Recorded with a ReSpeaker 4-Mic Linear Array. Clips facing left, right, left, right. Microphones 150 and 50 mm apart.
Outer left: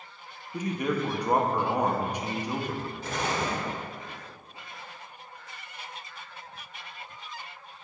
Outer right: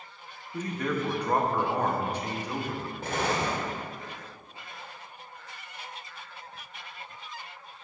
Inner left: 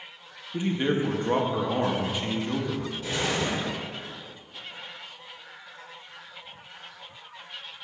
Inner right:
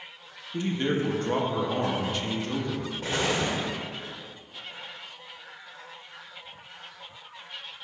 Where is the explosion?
55° right (ahead or behind), 1.5 m.